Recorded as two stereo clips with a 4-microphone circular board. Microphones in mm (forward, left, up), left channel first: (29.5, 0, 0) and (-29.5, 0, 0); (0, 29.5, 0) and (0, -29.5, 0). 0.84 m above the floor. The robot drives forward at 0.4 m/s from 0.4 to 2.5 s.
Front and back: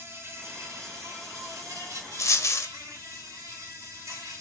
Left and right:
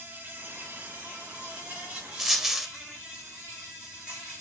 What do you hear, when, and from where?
0.0 s an insect: 145° right, 0.9 m; by 4.4 s 165° right, 1.6 m
2.2 s a dropped coin: 5° right, 0.6 m; by 2.7 s 10° right, 0.5 m